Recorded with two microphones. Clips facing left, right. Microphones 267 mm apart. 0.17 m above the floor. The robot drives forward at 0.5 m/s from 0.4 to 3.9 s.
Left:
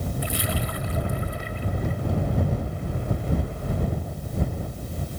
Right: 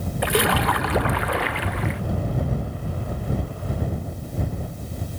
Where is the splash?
70° right (ahead or behind); by 2.0 s 80° right.